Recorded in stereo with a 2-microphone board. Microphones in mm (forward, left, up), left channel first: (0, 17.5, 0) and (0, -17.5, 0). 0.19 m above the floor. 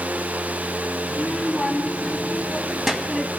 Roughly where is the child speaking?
Left.